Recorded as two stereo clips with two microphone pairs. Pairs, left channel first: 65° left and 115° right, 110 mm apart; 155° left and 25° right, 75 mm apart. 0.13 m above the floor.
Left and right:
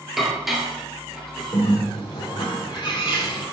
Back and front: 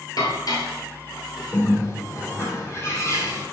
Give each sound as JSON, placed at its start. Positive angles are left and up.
{"t": 0.2, "sound": "dishes clattering", "azimuth_deg": 160, "distance_m": 1.8}
{"t": 1.5, "sound": "a bird", "azimuth_deg": 110, "distance_m": 3.0}